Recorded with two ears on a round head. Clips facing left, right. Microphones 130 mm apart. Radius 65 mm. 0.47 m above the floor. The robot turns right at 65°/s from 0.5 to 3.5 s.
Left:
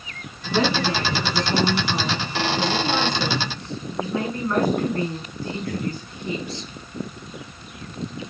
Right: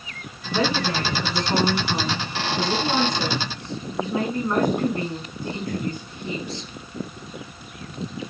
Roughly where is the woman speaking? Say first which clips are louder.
Left 2 dB; behind left.